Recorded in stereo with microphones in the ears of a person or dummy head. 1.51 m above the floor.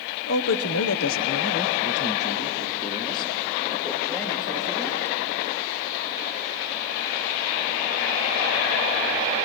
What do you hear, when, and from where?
0.3 s a man speaking: 55° left (ahead or behind), 1.0 m; by 5.2 s 20° left (ahead or behind), 3.5 m